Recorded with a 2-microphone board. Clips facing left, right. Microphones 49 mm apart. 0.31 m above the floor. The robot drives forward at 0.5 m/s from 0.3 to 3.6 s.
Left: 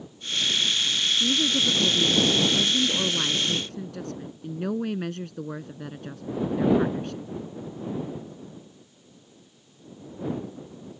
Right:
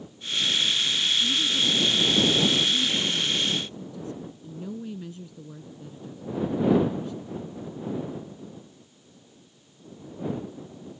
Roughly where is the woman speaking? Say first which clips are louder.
Left 1 dB; left.